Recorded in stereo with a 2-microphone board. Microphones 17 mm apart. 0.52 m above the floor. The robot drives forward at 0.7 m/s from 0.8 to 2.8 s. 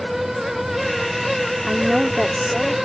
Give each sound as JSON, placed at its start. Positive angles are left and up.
{"t": 1.7, "sound": "a woman speaking", "side_deg": -20}